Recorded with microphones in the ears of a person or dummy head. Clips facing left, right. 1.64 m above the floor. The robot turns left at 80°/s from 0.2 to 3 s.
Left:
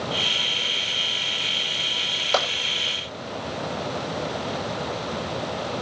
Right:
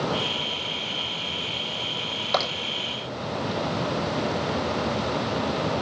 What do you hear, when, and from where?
2.3 s tapping: 35° left (ahead or behind), 6 m; by 2.5 s 50° left (ahead or behind), 6 m